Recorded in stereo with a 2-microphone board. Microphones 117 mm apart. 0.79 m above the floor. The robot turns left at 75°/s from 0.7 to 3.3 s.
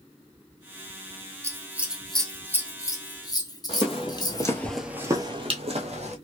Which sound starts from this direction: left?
Footsteps, at 3.7 s.